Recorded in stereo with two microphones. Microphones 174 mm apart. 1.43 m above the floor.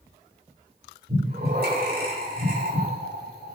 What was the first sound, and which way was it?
Breathing, 60° right (ahead or behind).